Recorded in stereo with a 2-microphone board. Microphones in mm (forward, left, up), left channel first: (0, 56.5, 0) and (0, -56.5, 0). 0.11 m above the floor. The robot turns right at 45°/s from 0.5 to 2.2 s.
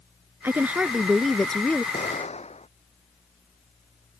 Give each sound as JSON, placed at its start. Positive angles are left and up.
{"t": 0.4, "sound": "a woman speaking", "azimuth_deg": -35}
{"t": 1.9, "sound": "an explosion", "side_deg": 70}